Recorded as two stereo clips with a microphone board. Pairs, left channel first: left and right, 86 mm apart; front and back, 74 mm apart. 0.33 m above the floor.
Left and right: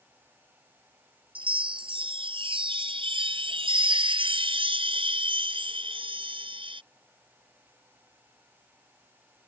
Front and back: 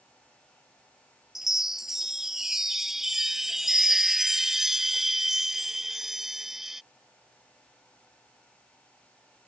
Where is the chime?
95° right.